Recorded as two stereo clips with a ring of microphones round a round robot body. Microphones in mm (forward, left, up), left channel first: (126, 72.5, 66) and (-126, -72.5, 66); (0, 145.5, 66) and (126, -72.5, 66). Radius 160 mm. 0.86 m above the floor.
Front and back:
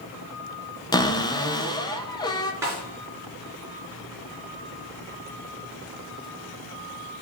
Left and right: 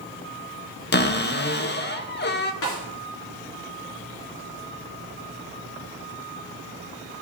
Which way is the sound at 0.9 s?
100° left.